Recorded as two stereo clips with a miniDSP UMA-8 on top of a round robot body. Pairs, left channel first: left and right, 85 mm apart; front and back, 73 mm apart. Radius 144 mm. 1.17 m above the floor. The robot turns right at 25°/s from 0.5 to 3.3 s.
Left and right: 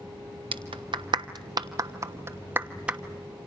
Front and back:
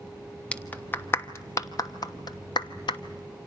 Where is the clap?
75° right, 1.1 m; by 3.0 s 10° right, 1.1 m.